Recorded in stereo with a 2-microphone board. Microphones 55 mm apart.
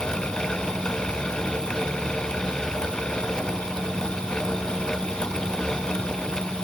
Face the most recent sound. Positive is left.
No sound to turn to.